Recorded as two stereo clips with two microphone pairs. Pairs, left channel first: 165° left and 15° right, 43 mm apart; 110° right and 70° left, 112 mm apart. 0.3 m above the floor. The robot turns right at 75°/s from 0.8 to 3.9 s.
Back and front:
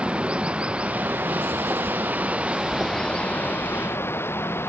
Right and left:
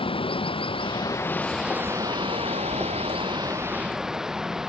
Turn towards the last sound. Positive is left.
turn(degrees=155)